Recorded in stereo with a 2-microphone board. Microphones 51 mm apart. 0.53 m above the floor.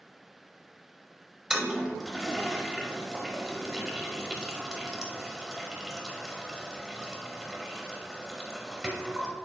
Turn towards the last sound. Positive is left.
turn(degrees=-10)  # may be behind; listen again after turning